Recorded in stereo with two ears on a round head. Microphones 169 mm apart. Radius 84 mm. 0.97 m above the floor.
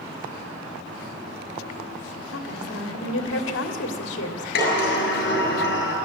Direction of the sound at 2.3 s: 65° left (ahead or behind).